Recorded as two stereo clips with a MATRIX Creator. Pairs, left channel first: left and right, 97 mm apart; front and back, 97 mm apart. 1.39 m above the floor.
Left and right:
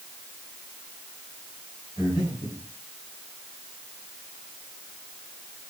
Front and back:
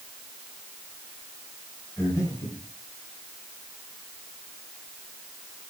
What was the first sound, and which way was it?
Breathing, 50° left.